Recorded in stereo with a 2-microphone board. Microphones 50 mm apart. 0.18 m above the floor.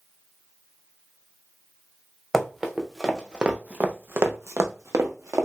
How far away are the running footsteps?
About 1.1 m.